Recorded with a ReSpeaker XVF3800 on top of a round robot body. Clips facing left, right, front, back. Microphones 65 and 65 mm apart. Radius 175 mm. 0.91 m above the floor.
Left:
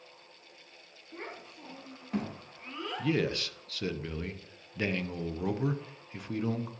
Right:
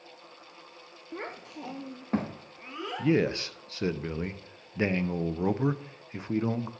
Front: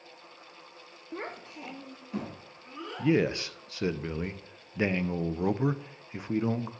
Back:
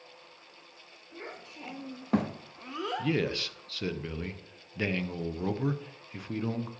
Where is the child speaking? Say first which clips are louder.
Right 5 dB, front 5 dB; 40° right, 1.0 m; by 3.1 s 170° right, 2.0 m.